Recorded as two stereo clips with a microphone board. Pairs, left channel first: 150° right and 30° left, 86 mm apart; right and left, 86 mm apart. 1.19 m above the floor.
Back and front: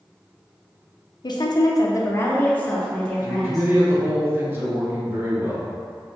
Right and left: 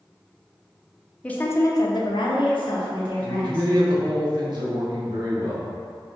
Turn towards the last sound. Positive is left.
turn(degrees=85)